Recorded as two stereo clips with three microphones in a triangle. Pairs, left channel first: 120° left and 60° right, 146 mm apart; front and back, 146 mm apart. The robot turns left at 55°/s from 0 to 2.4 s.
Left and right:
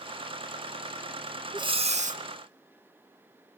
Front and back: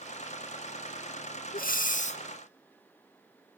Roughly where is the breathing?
Ahead.